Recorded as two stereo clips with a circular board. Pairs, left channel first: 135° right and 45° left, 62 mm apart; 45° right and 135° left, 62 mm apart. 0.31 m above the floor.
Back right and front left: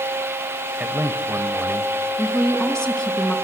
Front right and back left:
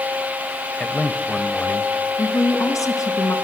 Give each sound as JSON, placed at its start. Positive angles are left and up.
{"t": 0.8, "sound": "a man speaking", "azimuth_deg": 10, "distance_m": 1.8}
{"t": 2.2, "sound": "a woman speaking", "azimuth_deg": -55, "distance_m": 3.0}